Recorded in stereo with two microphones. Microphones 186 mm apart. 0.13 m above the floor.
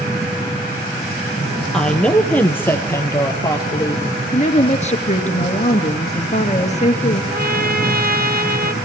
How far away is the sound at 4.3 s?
About 2.5 m.